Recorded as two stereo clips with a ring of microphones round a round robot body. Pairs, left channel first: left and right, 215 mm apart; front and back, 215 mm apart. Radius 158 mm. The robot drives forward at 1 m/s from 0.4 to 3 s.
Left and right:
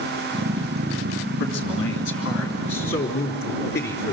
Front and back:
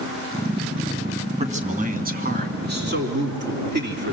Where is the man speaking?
120° left, 2.5 m; by 4.1 s 145° left, 4 m.